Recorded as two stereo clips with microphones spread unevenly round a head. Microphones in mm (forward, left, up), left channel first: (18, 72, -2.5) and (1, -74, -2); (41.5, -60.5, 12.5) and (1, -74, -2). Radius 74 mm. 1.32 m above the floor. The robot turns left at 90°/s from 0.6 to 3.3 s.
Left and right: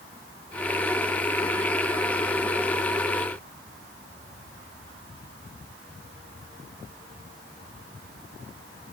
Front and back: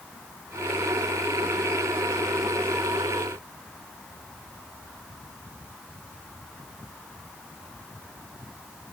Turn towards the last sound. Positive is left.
No sound to turn to.